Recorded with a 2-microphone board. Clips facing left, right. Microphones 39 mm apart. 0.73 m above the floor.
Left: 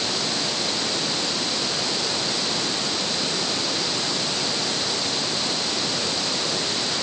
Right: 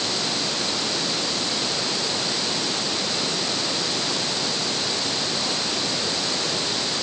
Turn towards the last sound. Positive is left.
No sound to turn to.